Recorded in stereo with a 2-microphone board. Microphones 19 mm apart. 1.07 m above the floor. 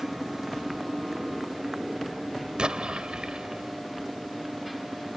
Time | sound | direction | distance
0.0 | a motorcycle | 20° right (ahead or behind) | ?
2.6 | an explosion | 65° right (ahead or behind) | ?